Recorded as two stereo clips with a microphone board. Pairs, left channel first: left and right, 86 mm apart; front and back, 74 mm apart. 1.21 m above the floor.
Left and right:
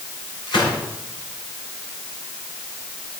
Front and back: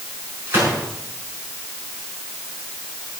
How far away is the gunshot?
About 6.5 m.